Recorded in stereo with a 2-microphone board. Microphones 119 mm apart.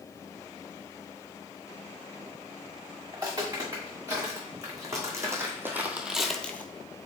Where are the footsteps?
30° right (ahead or behind), 2.5 m; by 6.7 s 15° left (ahead or behind), 0.6 m.